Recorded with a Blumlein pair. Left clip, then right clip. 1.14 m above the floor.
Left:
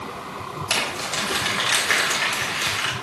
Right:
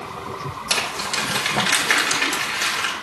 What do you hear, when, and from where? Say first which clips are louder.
0.7 s crumpling: right 1 dB; 10° right, 1.7 m